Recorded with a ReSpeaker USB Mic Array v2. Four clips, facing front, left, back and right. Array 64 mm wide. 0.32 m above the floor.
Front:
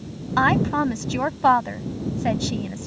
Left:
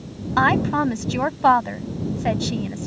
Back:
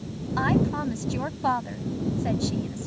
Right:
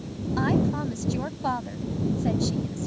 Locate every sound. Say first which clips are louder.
0.4 s a woman speaking: left 7 dB, front 5 dB; 50° left